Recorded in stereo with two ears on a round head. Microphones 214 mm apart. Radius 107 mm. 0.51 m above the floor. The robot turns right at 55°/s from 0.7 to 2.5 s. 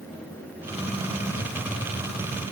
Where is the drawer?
I don't hear a drawer.